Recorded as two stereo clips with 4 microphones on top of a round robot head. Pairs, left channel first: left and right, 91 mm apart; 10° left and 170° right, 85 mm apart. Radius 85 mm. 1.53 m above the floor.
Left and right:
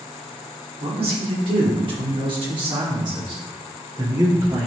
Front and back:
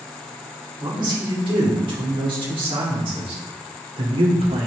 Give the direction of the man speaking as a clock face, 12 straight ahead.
4 o'clock.